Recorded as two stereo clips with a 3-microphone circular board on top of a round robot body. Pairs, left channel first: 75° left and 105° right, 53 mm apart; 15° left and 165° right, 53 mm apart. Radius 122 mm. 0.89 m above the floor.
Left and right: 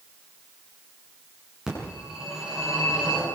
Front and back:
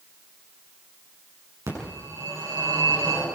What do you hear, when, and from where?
1.7 s a phone ringing: 175° left, 8 m